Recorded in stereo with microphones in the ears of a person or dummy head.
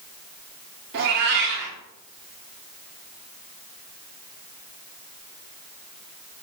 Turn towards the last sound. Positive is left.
turn(degrees=-55)  # may be behind; listen again after turning